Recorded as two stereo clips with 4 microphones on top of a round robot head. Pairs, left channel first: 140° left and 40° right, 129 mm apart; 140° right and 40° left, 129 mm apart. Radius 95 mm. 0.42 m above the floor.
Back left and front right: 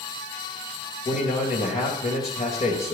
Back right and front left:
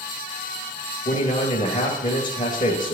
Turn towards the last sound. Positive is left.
turn(degrees=170)